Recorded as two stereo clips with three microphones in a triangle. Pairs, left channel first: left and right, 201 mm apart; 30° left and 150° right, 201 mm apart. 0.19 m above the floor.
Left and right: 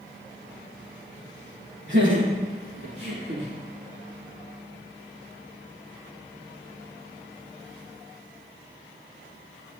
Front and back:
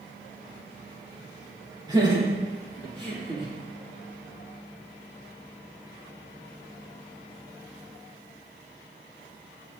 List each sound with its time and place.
1.9 s laughter: 80° right, 4.5 m; by 3.5 s 85° right, 6.5 m